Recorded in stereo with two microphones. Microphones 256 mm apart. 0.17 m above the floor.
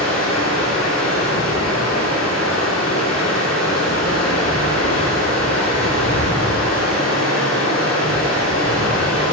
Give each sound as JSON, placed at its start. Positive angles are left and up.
{"t": 0.0, "sound": "running water", "side_deg": 75, "distance_m": 5.0}